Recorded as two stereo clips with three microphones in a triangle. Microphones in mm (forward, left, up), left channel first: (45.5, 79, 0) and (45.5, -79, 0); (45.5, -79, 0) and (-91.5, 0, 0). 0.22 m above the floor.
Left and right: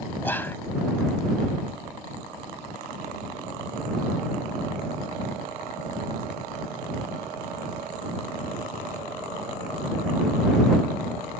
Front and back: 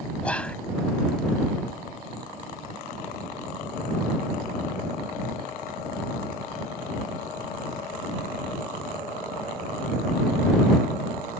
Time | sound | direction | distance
0.2 | whispering | 35° left | ?